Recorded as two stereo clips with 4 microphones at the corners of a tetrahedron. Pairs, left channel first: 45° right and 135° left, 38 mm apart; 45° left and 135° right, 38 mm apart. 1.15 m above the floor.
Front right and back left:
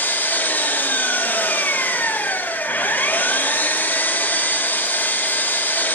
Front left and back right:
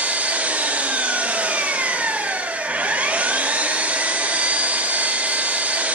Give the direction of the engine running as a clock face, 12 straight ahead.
3 o'clock.